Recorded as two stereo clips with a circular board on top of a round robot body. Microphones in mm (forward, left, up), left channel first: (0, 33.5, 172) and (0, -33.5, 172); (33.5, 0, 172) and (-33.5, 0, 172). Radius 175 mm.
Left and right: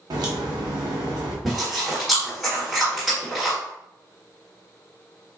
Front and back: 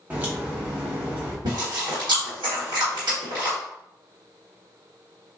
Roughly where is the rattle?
No rattle in this recording.